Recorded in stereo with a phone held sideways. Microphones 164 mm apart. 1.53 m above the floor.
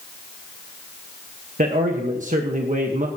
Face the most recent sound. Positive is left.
turn(degrees=-50)  # may be behind; listen again after turning